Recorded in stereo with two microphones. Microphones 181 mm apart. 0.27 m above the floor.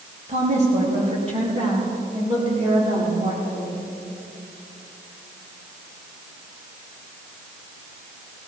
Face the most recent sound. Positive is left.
turn(degrees=-30)  # may be behind; listen again after turning